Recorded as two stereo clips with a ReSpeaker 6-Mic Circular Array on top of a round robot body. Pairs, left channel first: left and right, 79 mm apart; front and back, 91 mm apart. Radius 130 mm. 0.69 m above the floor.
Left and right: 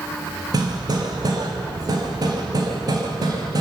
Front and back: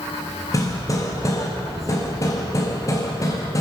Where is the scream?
I don't hear a scream.